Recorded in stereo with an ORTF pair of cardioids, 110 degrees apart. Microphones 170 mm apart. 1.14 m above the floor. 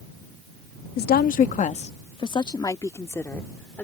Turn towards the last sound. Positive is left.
turn(degrees=10)